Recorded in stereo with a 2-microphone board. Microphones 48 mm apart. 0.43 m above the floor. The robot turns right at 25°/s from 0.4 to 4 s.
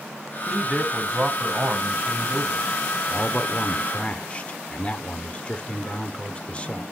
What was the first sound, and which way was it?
A man speaking, 170° right.